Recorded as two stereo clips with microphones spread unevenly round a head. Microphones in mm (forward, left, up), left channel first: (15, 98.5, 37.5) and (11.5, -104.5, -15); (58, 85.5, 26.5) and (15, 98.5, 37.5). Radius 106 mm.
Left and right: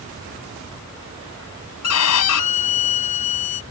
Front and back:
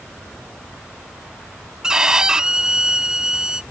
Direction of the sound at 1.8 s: 90° left.